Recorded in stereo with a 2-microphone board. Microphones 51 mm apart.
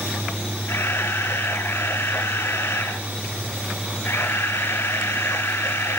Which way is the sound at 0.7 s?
60° left (ahead or behind).